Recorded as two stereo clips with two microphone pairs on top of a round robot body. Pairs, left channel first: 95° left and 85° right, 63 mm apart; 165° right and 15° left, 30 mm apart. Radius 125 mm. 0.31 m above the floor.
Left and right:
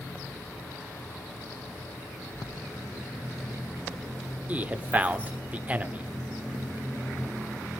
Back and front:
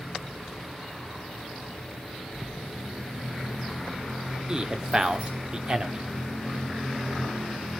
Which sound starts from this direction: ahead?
A man speaking, at 4.5 s.